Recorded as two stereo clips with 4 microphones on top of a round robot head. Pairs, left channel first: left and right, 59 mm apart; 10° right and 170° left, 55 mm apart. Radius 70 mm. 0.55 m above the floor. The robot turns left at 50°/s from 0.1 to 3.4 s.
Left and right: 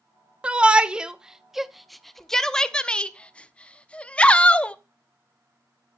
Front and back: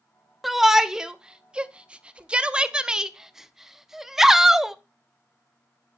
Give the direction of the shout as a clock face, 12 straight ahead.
4 o'clock.